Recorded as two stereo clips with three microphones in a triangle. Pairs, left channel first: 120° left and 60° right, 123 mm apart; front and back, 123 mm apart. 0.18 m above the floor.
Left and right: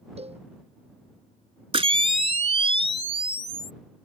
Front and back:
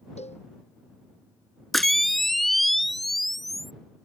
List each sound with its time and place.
0.2 s a cowbell: 30° right
1.7 s a camera shutter: 90° right